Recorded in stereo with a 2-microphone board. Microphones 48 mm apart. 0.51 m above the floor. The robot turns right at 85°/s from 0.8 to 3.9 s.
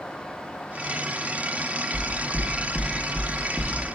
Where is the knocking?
30° left (ahead or behind), 0.7 m; by 3.7 s 30° right (ahead or behind), 0.7 m.